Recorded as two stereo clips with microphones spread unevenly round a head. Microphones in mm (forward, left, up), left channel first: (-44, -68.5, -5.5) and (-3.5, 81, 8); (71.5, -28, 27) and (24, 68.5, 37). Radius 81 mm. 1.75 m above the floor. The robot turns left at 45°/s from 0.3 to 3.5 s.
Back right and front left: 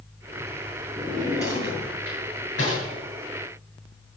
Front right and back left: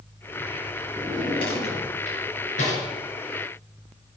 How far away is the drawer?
About 8.5 m.